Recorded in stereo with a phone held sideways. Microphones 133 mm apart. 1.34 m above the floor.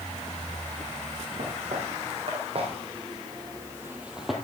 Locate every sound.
1.4 s footsteps: 65° right (ahead or behind), 3.5 m; by 4.3 s centre (ahead or behind), 1.7 m